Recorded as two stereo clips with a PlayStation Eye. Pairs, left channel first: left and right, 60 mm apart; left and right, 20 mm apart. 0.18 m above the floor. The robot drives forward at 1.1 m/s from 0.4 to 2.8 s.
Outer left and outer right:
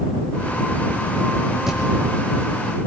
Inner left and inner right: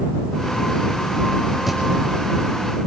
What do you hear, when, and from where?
1.7 s a thud: 5° right (ahead or behind), 5 m